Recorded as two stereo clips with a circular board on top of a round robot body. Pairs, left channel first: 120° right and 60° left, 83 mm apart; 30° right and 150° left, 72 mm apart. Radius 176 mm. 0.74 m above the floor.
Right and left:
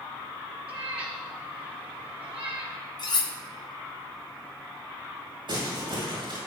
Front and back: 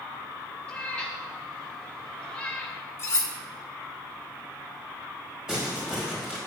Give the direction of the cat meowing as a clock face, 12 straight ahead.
11 o'clock.